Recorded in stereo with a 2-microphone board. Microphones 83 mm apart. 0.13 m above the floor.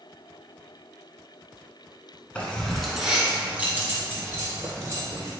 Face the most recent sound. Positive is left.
turn(degrees=-40)  # may be behind; listen again after turning